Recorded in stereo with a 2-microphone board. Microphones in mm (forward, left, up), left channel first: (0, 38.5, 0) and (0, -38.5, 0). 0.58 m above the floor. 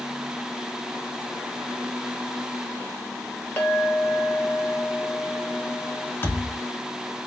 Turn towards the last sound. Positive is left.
turn(degrees=30)  # may be behind; listen again after turning